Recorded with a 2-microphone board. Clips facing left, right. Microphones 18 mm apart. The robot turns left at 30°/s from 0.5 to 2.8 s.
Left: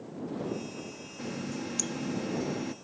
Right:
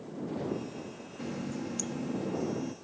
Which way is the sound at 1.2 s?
170° left.